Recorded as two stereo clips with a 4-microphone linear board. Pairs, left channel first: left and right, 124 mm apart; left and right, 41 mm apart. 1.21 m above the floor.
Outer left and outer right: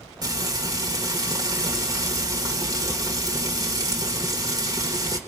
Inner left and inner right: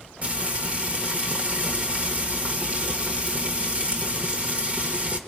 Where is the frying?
30° right (ahead or behind), 1.6 m.